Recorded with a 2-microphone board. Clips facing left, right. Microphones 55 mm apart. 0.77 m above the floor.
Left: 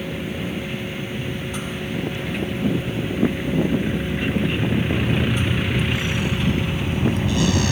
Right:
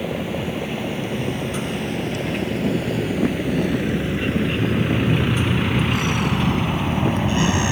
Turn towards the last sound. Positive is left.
turn(degrees=-20)  # may be behind; listen again after turning